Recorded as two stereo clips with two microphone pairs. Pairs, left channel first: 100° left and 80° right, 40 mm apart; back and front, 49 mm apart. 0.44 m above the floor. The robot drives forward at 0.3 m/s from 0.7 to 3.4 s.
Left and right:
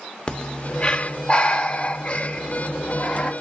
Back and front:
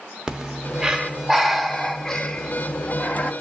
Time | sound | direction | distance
0.3 | breathing | 55° left | 0.9 m